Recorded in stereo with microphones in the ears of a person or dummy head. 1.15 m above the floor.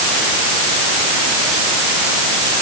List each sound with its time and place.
Only background noise.